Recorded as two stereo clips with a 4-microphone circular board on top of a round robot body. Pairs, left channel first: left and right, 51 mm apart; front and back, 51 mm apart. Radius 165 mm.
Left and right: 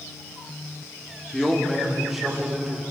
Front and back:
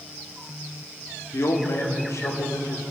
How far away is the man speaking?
About 1.8 m.